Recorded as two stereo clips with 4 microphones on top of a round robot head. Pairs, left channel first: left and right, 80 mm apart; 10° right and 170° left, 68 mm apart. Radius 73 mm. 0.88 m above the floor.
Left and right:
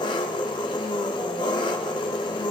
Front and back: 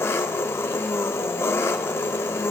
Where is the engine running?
45° left, 0.8 m.